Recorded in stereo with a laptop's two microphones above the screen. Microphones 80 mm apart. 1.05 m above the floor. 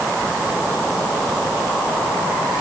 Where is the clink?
No clink in this recording.